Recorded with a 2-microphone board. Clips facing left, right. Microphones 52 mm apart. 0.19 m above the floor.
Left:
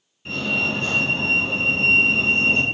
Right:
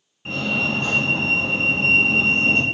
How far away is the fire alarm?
About 3 m.